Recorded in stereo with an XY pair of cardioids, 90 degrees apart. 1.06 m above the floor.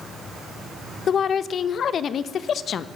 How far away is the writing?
I don't hear writing.